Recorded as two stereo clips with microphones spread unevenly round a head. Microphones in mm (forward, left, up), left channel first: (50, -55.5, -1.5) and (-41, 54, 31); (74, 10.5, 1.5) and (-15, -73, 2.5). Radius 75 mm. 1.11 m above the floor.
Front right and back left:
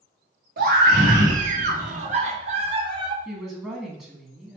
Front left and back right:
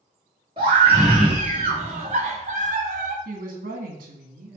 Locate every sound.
0.6 s a scream: 165° left, 3 m; by 3.1 s 165° right, 1.4 m
3.2 s a woman speaking: 145° right, 2 m